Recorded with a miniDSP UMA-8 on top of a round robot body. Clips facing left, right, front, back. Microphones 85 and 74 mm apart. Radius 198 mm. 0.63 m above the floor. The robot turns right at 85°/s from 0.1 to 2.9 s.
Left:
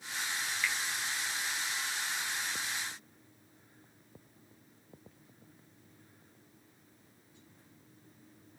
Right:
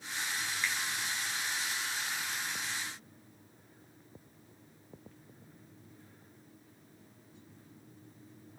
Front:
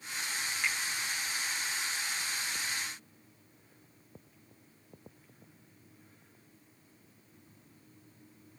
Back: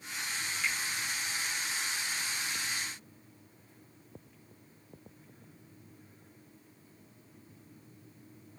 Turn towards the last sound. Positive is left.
turn(degrees=170)